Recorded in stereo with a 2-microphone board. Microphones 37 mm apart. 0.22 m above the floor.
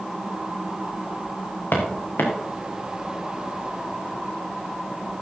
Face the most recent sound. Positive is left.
turn(degrees=90)